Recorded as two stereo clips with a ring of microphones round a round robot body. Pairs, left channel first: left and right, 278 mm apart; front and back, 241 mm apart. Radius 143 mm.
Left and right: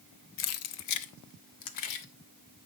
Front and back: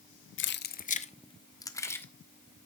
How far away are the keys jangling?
About 0.7 m.